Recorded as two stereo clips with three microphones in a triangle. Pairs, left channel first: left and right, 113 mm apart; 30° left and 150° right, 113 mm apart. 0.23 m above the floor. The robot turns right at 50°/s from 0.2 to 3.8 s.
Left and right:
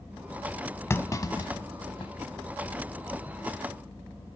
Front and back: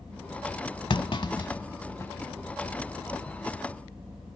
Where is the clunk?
30° left, 0.7 m; by 2.1 s 90° left, 0.7 m.